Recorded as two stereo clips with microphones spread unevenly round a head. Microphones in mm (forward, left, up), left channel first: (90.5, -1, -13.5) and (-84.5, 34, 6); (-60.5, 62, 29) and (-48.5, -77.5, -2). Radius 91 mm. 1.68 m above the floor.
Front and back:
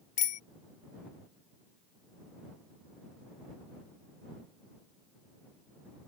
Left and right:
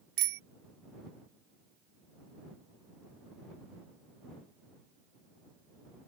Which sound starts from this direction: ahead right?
A bicycle bell, at 0.2 s.